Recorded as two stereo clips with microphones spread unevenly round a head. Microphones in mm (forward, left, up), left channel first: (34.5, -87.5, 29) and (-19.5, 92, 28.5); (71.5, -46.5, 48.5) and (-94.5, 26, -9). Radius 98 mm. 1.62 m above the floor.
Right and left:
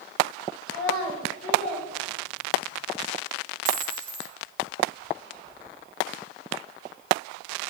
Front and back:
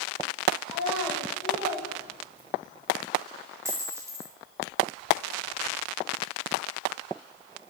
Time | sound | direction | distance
0.7 | a child speaking | 60° left | 6 m
3.6 | a dropped coin | 70° left | 1.4 m